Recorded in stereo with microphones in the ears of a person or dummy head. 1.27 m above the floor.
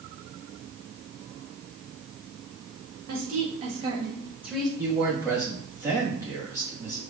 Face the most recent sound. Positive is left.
turn(degrees=-15)  # may be behind; listen again after turning